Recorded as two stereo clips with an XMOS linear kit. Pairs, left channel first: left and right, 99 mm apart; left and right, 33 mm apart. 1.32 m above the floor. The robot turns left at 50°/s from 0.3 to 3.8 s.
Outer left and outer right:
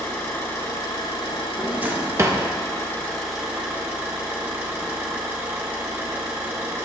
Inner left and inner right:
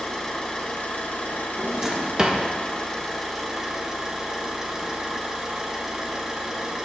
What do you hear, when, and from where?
0.0 s an engine running: 155° left, 1.9 m; by 6.8 s 20° right, 1.9 m
1.6 s a drawer: 10° right, 0.7 m; by 2.4 s 55° right, 0.7 m